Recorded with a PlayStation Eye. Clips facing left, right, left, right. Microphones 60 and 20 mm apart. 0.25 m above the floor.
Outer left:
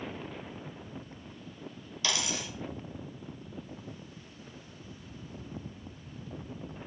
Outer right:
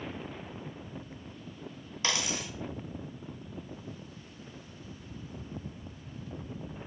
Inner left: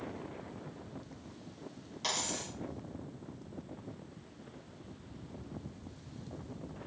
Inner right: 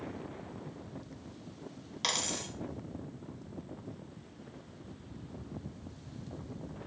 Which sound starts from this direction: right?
A dropped coin, at 2.0 s.